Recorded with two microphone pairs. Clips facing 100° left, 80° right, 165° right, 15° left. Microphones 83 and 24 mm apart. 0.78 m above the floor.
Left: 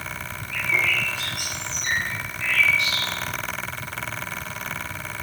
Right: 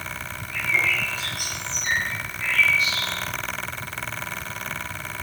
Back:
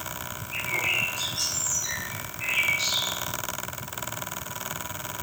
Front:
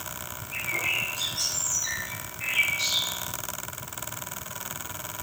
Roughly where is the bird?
Behind left.